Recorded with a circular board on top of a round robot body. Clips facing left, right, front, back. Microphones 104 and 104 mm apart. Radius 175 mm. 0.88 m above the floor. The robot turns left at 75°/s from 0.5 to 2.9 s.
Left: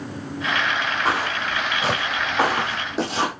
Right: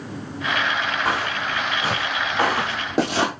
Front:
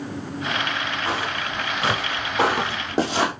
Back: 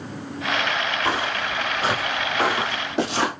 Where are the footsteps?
155° left, 2.5 m; by 3.3 s 80° right, 1.5 m.